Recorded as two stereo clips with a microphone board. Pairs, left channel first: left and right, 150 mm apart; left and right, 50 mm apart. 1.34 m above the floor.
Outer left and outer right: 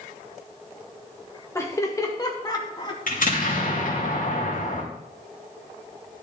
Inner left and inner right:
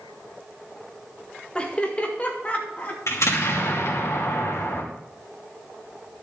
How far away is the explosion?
About 2.5 m.